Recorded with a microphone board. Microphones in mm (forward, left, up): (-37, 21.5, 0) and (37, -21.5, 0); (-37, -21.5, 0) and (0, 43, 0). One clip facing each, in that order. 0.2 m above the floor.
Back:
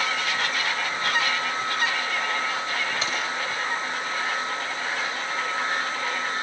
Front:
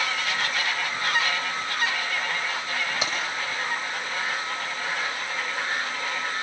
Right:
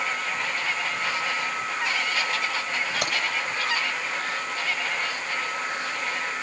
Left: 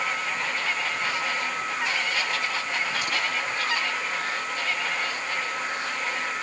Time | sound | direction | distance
3.0 | keys jangling | 100° right | 7 m